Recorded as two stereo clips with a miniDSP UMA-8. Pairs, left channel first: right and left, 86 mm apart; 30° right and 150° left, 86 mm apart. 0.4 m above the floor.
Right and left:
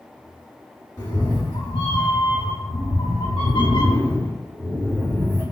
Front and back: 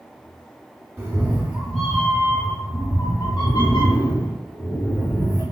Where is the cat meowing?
145° right, 1.2 m; by 5.4 s 35° right, 1.6 m.